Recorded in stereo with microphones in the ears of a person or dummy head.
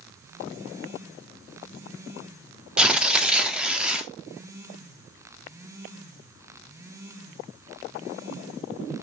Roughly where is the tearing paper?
Centre.